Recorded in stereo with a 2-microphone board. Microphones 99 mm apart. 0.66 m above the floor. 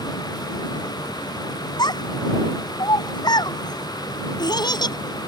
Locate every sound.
1.8 s a child speaking: 45° left (ahead or behind)